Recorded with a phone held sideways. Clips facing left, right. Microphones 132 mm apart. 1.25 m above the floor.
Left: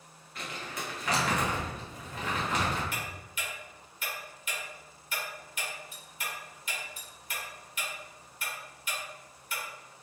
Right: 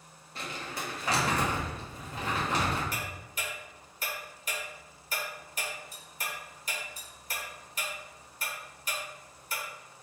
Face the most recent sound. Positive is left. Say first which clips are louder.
# right 1 dB
turn(degrees=-40)  # may be behind; listen again after turning